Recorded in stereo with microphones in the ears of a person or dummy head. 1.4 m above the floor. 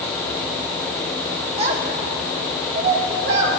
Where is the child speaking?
40° right (ahead or behind), 2 m; by 3.6 s 70° right (ahead or behind), 3 m.